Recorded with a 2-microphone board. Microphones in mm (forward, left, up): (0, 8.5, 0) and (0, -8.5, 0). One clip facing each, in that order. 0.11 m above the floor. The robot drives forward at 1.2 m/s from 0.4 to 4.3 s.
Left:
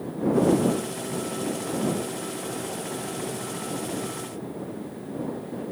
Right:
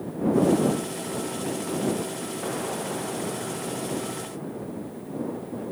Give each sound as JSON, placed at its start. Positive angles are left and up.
{"t": 2.4, "sound": "an explosion", "side_deg": -65}